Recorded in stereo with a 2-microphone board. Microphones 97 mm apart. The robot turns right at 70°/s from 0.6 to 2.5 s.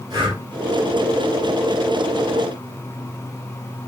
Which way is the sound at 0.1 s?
40° right (ahead or behind).